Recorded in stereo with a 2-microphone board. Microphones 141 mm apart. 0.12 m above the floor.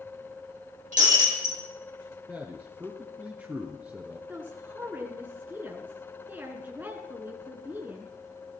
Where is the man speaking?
10° right (ahead or behind), 1.3 m.